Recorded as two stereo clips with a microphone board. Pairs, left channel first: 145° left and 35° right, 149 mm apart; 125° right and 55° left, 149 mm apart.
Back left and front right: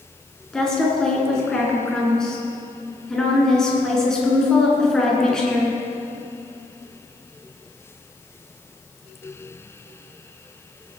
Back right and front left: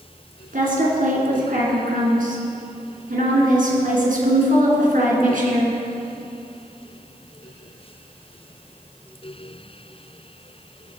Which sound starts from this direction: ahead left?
A woman speaking, at 0.5 s.